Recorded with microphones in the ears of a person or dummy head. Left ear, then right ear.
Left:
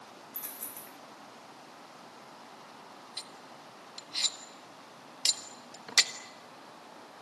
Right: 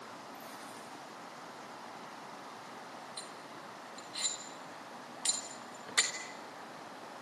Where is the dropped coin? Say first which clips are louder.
Right 1 dB; 40° left (ahead or behind), 3 m.